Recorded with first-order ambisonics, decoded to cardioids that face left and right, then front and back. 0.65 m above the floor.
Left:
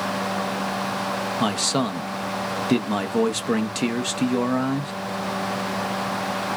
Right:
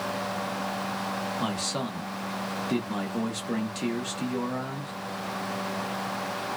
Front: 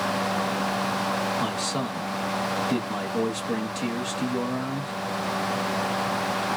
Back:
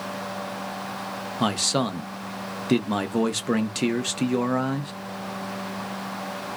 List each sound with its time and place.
1.4 s a man speaking: 135° left, 0.8 m